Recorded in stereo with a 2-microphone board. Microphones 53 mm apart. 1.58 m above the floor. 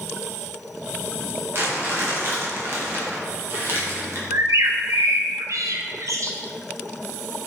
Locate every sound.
1.5 s crumpling: 45° right (ahead or behind), 1.6 m
4.3 s a bird: 75° right (ahead or behind), 0.6 m